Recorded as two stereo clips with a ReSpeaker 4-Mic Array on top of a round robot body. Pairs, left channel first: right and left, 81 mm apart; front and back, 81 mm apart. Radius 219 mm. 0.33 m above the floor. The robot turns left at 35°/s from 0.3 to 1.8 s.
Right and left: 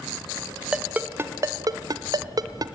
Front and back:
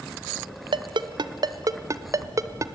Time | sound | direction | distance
0.7 | a ringtone | 170° left | 0.8 m